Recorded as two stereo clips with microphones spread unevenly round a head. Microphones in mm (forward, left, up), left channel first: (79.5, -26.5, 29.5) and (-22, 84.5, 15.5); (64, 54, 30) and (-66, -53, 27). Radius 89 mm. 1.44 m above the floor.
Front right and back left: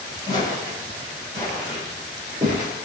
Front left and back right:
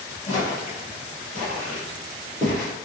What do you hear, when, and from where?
0.3 s footsteps: 25° right, 1.7 m; by 2.7 s 110° left, 1.5 m